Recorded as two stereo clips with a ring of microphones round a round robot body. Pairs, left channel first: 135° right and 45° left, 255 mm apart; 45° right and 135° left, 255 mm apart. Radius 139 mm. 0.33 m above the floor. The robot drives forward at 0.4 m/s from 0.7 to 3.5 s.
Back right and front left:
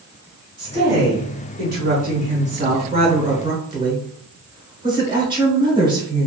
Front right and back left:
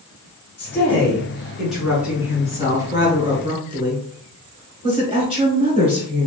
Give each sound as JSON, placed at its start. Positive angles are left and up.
{"t": 0.6, "sound": "a woman speaking", "azimuth_deg": 35, "distance_m": 1.8}